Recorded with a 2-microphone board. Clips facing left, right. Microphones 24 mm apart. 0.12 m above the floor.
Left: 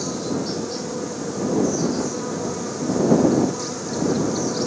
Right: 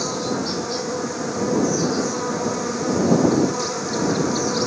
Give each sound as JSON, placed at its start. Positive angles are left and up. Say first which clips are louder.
{"t": 0.0, "sound": "an insect", "louder": "right 2 dB", "side_deg": -25}